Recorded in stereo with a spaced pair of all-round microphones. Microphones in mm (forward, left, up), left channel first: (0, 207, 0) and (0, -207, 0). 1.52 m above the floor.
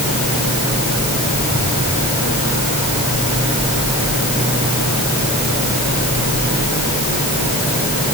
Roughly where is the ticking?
I don't hear ticking.